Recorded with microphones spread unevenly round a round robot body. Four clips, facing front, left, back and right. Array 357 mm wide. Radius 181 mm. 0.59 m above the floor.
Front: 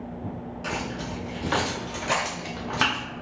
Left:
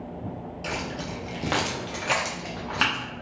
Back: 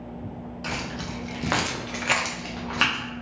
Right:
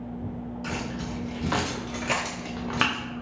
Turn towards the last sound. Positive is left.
turn(degrees=-80)